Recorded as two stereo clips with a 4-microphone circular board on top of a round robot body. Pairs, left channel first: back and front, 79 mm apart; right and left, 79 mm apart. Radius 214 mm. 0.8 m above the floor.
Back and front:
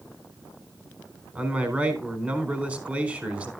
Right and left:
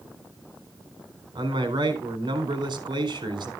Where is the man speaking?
70° left, 4 m.